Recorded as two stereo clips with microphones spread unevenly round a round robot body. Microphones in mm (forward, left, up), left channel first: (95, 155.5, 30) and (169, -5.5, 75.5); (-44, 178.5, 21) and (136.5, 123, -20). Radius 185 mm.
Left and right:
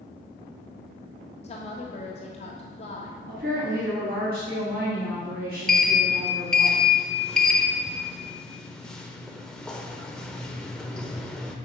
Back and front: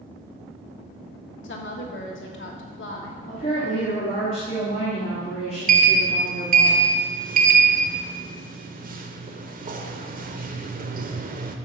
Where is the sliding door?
10° left, 0.7 m.